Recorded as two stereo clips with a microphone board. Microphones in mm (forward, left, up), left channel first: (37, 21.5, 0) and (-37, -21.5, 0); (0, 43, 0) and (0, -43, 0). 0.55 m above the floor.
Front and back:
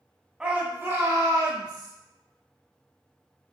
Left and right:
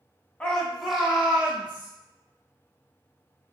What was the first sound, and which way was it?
A shout, 145° left.